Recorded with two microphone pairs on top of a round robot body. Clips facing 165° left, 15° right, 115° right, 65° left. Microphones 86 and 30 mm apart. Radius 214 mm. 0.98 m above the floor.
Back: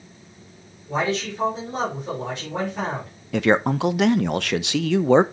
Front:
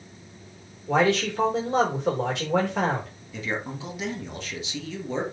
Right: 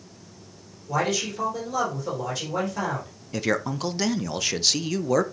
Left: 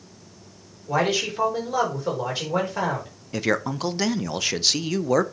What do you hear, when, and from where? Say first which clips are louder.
0.9 s a man speaking: front 3 dB, left 3 dB; straight ahead, 4 m
3.3 s a man speaking: back 12 dB, left 1 dB; 145° left, 0.6 m